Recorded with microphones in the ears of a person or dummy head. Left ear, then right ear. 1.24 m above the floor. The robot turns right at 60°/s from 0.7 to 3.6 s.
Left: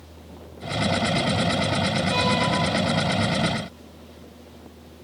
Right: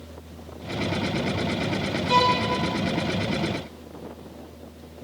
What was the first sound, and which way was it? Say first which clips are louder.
A violin: right 5 dB; 40° right (ahead or behind).